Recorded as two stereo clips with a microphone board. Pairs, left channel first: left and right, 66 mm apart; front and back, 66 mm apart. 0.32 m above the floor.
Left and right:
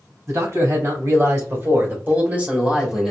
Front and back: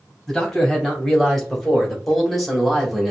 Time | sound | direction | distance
0.3 | a man speaking | 85° right | 2.5 m